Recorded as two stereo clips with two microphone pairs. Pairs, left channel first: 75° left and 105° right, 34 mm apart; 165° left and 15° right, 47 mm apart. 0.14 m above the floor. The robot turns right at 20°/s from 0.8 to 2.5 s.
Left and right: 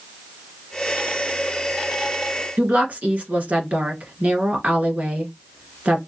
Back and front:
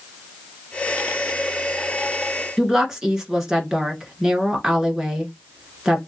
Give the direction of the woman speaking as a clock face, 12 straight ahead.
3 o'clock.